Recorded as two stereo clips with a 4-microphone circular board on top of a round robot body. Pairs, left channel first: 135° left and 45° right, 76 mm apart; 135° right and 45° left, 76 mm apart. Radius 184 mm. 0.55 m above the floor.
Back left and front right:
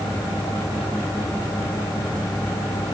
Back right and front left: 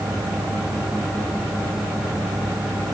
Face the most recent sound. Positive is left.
No sound to turn to.